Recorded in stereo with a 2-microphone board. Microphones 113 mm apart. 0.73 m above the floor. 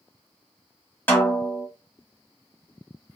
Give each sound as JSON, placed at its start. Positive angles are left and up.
{"t": 1.1, "sound": "a snare drum", "side_deg": 15, "distance_m": 1.3}